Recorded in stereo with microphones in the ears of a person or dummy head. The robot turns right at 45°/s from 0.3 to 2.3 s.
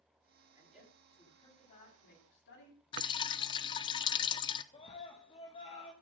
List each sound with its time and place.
0.6 s a woman speaking: 10° right (ahead or behind), 9 m; by 2.8 s 70° left (ahead or behind), 9 m
2.9 s dripping: 25° left (ahead or behind), 0.8 m
4.7 s a scream: 30° left (ahead or behind), 1.5 m